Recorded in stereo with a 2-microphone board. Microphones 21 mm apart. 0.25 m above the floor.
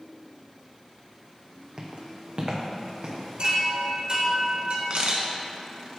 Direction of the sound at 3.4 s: 60° right (ahead or behind).